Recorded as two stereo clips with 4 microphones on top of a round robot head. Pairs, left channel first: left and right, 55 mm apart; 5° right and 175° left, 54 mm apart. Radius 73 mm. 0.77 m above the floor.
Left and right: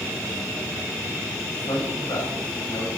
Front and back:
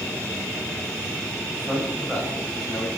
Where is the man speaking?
85° left, 5 m.